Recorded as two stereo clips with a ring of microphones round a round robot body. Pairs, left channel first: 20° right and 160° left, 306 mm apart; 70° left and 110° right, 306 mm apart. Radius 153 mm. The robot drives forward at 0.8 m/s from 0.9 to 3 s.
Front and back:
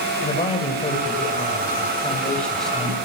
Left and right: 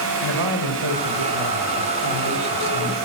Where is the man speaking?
95° right, 5 m; by 3.0 s 115° right, 5 m.